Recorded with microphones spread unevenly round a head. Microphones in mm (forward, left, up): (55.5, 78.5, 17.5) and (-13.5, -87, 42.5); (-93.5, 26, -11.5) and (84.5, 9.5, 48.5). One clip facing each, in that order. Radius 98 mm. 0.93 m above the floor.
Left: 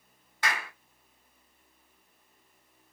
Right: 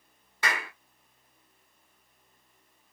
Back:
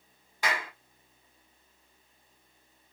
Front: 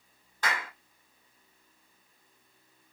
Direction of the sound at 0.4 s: 105° right.